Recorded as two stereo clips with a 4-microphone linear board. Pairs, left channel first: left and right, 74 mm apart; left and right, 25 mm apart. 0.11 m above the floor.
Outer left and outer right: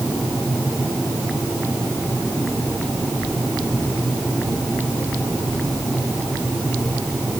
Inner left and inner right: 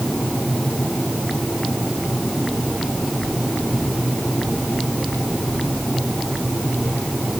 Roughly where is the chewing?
I don't hear chewing.